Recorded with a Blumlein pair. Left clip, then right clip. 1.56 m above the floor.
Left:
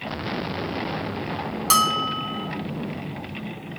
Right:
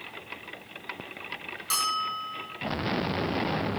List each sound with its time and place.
1.7 s a bell: 60° left, 1.1 m